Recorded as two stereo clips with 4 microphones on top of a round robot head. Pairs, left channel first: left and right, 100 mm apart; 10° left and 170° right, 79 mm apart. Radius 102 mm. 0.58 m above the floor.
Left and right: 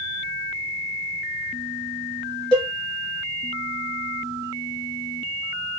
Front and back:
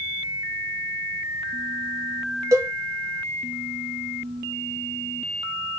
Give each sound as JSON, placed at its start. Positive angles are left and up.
{"t": 2.5, "sound": "a cowbell", "azimuth_deg": 135, "distance_m": 1.0}